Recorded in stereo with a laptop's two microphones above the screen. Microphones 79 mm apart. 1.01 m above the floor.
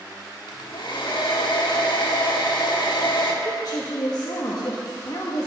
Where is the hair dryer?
75° left (ahead or behind), 1.5 m.